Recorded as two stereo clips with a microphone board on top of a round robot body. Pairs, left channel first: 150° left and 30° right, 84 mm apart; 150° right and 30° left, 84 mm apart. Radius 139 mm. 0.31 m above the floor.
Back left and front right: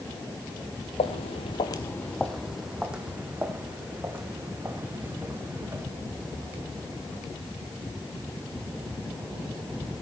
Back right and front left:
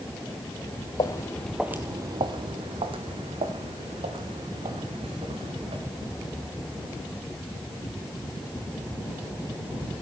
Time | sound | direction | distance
1.0 | footsteps | 160° left | 0.6 m